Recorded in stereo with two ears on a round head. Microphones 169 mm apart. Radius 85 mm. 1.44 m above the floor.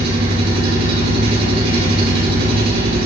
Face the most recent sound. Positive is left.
turn(degrees=-55)  # may be behind; listen again after turning